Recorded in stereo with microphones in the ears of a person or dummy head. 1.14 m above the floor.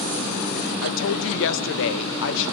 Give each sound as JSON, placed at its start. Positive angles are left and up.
{"t": 0.8, "sound": "a woman speaking", "side_deg": 65, "distance_m": 1.0}